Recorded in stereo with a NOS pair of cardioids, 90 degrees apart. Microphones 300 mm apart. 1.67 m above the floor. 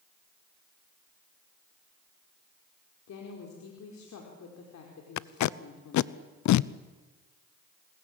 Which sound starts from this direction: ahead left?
A woman speaking, at 3.1 s.